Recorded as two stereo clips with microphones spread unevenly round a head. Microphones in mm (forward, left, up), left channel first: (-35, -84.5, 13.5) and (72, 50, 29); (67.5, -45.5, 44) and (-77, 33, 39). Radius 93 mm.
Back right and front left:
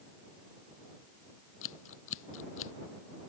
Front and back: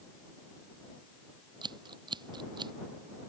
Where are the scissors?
145° right.